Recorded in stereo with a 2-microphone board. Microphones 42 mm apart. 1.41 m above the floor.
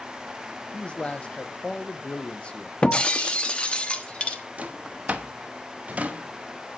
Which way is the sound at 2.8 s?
25° left (ahead or behind).